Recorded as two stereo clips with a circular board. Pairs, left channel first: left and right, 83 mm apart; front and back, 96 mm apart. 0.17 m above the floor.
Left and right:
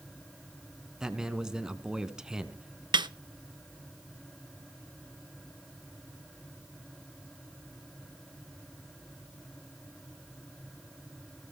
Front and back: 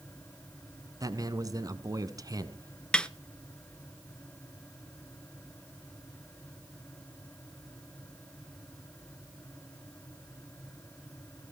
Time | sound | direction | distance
1.0 | a man speaking | 170° right | 1.3 m
2.9 | a snare drum | 80° right | 0.5 m